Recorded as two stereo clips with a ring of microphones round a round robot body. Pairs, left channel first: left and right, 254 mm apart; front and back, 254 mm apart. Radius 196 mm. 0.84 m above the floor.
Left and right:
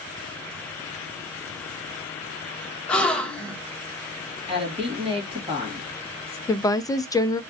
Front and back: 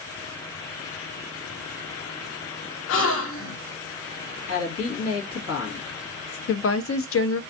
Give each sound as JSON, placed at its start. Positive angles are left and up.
{"t": 2.9, "sound": "a gasp", "azimuth_deg": 5, "distance_m": 1.0}
{"t": 4.5, "sound": "a woman speaking", "azimuth_deg": -25, "distance_m": 2.0}
{"t": 6.5, "sound": "a woman speaking", "azimuth_deg": 15, "distance_m": 0.6}